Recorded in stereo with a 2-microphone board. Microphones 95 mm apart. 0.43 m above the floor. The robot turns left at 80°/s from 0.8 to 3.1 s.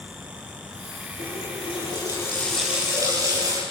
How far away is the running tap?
About 7 m.